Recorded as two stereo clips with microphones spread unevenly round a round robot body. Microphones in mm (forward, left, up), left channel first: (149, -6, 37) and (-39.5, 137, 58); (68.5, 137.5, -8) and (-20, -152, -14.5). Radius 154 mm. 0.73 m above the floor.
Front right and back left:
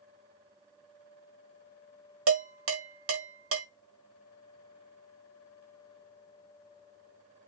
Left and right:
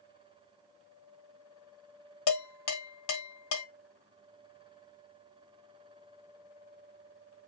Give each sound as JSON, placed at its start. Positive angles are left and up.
{"t": 2.3, "sound": "dishes clattering", "azimuth_deg": 115, "distance_m": 1.2}